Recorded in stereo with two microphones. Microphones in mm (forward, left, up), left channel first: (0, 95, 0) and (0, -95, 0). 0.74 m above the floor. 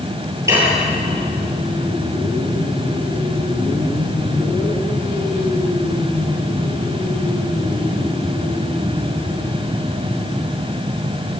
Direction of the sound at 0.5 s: 15° right (ahead or behind).